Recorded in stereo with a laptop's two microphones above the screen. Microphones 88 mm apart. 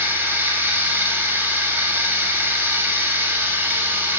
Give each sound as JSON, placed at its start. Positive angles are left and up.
{"t": 0.0, "sound": "running water", "side_deg": -25, "distance_m": 0.9}